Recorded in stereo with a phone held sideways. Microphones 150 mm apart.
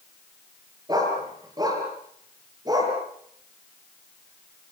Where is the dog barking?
25° right (ahead or behind), 7 m.